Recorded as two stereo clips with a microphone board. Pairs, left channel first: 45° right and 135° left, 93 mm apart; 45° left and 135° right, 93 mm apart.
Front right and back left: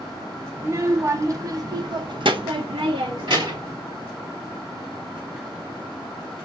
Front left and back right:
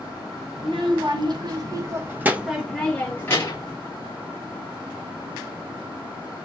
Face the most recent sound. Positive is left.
turn(degrees=95)